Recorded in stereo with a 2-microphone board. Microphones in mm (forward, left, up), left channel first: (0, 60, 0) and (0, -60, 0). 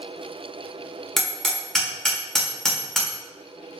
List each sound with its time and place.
1.2 s hammering: 5° left (ahead or behind), 1.3 m